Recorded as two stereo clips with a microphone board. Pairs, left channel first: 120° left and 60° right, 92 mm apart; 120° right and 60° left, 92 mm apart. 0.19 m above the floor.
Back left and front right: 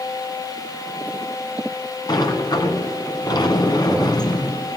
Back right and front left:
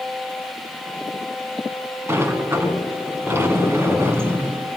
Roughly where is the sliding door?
Behind left.